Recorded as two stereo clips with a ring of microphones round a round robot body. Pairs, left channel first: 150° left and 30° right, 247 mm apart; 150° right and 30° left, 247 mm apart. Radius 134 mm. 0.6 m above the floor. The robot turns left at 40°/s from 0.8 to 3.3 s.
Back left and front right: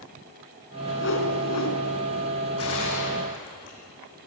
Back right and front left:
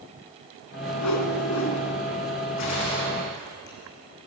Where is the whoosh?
160° right, 3 m; by 1.8 s 165° left, 3 m.